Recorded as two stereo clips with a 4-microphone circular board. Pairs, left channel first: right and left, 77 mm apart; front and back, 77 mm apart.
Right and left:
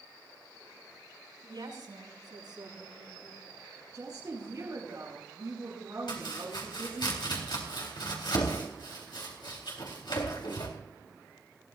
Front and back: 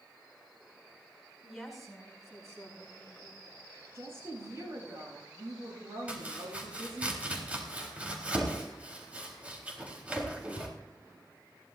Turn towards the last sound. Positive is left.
turn(degrees=-110)